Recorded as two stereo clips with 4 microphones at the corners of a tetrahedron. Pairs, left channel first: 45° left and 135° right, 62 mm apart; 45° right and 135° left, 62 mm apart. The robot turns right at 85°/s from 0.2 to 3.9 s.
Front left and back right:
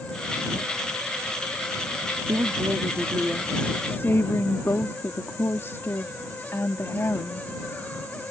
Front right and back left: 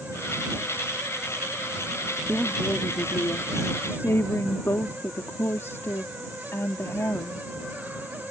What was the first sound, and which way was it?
A woman speaking, 140° right.